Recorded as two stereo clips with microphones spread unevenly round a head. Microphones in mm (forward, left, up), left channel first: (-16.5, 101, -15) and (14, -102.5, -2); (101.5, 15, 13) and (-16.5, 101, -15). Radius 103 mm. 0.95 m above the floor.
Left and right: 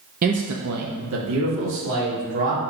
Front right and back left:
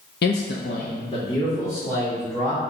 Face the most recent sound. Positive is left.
turn(degrees=-120)